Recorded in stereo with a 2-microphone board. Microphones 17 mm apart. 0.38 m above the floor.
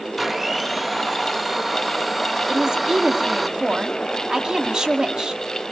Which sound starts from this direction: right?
A woman speaking, at 2.5 s.